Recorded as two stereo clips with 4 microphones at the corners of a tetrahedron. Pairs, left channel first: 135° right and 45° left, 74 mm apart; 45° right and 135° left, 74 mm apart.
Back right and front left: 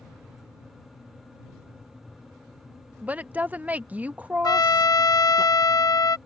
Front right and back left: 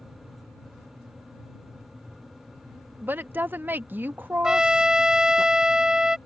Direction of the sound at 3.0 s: 95° left.